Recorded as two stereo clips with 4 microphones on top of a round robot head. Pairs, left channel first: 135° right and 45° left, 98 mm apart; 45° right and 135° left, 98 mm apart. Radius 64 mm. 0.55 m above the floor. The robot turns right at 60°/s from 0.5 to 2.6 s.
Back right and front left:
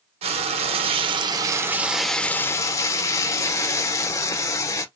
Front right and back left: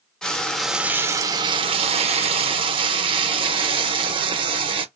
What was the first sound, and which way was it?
Frying, 40° left.